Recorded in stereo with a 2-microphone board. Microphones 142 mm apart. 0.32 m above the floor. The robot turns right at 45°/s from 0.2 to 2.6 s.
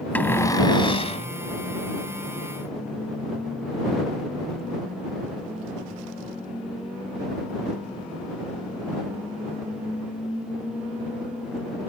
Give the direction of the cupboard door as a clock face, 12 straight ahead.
12 o'clock.